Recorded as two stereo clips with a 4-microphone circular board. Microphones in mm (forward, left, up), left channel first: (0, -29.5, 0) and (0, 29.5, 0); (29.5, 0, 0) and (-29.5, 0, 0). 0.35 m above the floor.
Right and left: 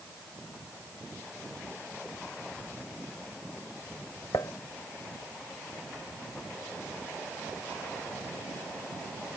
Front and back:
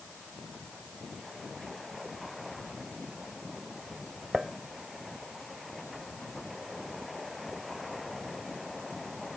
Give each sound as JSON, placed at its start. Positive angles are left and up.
{"t": 4.3, "sound": "dishes clattering", "azimuth_deg": -90}